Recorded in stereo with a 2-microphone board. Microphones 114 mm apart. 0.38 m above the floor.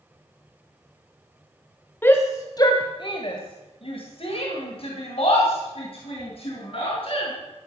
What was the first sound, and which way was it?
A shout, 20° left (ahead or behind).